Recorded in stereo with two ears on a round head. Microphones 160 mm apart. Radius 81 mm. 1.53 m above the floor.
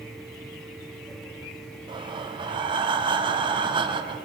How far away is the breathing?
About 0.6 m.